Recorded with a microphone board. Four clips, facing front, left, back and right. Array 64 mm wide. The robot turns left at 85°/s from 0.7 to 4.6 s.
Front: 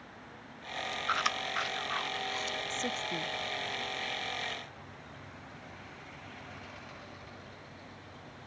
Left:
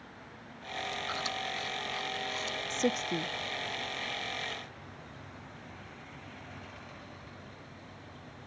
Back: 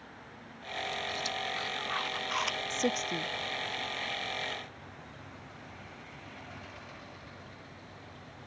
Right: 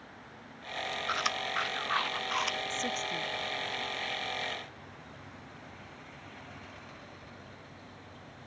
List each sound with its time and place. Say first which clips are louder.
1.1 s chewing: right 3 dB, front 4 dB; 20° right; by 2.6 s 145° right
2.7 s a woman speaking: left 4 dB, back 6 dB; 135° left; by 3.3 s 80° left